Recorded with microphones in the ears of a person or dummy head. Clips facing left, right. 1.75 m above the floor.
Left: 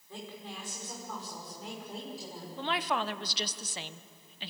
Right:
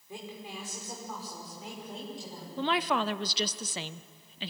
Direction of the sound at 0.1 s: 15° right (ahead or behind).